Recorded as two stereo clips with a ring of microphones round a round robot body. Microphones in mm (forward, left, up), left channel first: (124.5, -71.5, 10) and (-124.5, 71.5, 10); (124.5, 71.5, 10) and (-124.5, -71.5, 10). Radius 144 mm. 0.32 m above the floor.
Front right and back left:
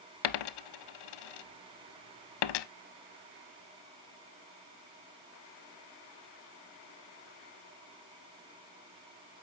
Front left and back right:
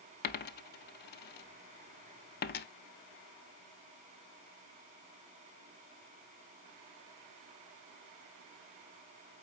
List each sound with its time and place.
0.2 s a dropped coin: 30° right, 0.5 m